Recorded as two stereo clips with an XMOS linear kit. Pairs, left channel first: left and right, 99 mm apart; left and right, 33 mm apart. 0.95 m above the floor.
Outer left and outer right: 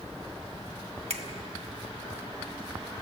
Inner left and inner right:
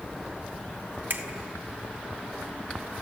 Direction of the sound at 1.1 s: 85° right.